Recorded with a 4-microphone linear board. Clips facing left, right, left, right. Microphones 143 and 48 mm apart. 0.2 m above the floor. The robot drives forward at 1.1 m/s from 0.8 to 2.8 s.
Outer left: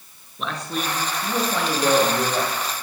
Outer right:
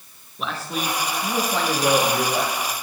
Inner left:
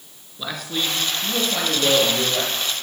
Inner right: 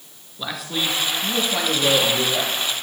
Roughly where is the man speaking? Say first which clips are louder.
Even, even; centre.